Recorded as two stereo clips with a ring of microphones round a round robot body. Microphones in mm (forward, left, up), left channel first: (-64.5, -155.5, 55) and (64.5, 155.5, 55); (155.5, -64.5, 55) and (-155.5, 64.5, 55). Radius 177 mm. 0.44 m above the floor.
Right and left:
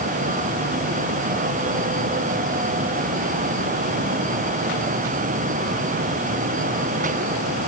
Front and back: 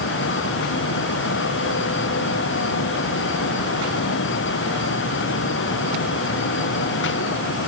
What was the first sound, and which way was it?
Only background noise.